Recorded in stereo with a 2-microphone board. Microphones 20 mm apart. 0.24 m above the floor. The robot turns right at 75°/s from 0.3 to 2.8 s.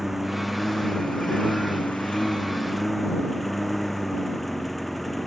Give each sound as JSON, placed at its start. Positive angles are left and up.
{"t": 0.0, "sound": "a lawn mower", "azimuth_deg": -5}